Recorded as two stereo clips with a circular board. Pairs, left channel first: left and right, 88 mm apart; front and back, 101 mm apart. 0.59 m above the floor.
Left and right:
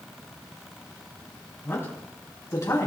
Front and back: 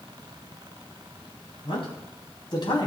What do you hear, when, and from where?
1.6 s a man speaking: 30° left, 4 m; by 2.9 s 40° left, 4.5 m